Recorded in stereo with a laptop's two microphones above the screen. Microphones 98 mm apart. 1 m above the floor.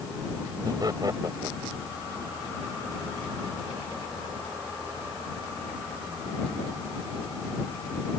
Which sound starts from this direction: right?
Laughter, at 0.7 s.